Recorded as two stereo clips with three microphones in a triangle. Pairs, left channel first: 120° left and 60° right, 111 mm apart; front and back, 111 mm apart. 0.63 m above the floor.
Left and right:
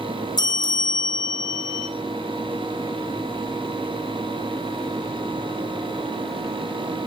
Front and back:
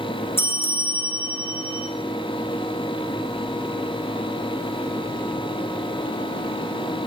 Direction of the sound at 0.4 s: 70° left.